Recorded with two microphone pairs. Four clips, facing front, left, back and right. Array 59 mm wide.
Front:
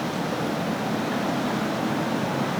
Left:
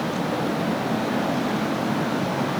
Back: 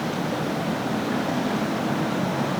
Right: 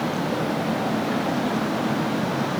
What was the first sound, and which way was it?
Only background noise.